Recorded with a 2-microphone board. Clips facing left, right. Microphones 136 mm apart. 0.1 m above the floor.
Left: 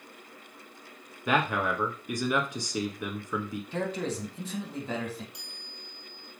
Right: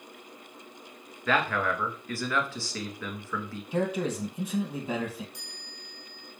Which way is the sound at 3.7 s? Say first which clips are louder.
Right 4 dB; 10° right (ahead or behind).